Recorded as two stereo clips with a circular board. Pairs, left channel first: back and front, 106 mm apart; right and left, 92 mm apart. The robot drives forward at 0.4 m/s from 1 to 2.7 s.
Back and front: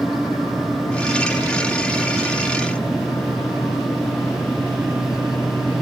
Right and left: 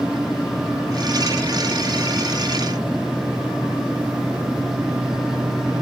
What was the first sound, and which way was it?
Only background noise.